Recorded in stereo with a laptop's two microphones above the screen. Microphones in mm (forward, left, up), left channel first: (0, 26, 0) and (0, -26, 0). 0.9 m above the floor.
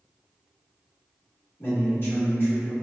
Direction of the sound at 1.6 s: 45° left (ahead or behind).